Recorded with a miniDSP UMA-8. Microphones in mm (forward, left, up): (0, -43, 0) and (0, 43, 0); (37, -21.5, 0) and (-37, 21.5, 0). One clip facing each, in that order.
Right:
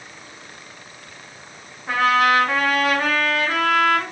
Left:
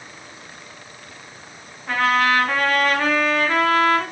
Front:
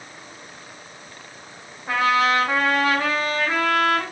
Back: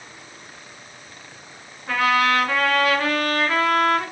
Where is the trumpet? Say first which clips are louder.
Right 1 dB, even; 30° right, 1.1 m.